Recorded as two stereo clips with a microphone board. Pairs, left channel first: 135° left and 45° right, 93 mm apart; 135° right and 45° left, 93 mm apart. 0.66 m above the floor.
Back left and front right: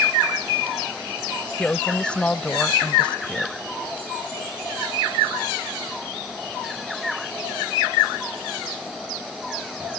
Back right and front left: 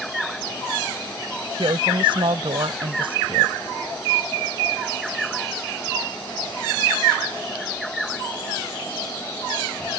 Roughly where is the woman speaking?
Ahead left.